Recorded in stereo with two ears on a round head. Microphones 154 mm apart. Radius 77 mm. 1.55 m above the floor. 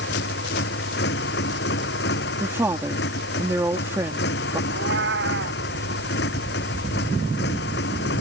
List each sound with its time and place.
0.0 s a motorcycle: 65° left (ahead or behind)
2.4 s a woman speaking: 15° right (ahead or behind)
4.7 s a cat meowing: 65° right (ahead or behind)